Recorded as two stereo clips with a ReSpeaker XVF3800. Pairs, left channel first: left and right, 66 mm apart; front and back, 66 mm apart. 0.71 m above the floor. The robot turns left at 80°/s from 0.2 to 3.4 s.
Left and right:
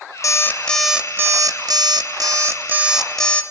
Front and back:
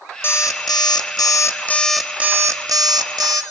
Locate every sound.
0.2 s an alarm clock: 45° left, 0.5 m; by 3.4 s 155° left, 0.5 m